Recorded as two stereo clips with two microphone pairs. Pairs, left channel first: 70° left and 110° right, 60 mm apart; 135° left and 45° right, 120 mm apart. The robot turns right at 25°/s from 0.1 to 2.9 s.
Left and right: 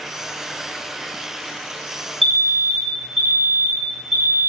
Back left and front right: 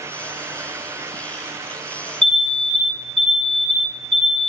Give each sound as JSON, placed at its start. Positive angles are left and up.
{"t": 2.2, "sound": "an alarm", "azimuth_deg": 150, "distance_m": 1.4}